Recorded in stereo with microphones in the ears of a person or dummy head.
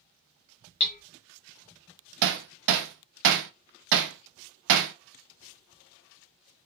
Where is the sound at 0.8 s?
35° left (ahead or behind), 0.5 m.